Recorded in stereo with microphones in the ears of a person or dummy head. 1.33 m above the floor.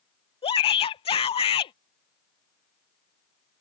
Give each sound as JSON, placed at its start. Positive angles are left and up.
{"t": 0.4, "sound": "a shout", "side_deg": 30}